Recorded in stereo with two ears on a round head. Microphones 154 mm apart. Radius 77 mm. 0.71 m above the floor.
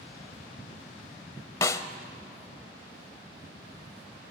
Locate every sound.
1.6 s a snare drum: 20° left (ahead or behind), 0.8 m